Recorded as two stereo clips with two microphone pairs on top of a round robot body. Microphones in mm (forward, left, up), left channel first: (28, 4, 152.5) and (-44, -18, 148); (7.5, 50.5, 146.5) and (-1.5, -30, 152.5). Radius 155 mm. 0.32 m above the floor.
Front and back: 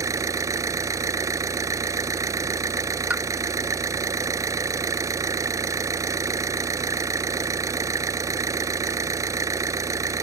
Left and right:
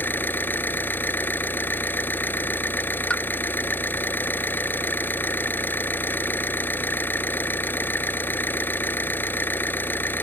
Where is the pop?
140° left.